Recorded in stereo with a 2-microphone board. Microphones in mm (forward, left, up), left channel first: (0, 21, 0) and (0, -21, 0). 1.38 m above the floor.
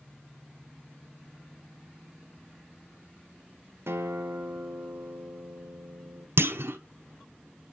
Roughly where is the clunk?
Right.